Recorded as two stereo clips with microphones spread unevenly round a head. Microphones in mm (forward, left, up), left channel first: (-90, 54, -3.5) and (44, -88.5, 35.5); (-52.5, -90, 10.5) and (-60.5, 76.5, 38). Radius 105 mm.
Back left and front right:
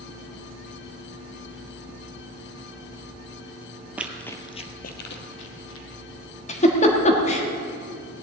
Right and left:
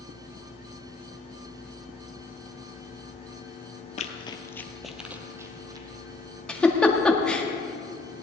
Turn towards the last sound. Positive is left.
turn(degrees=-170)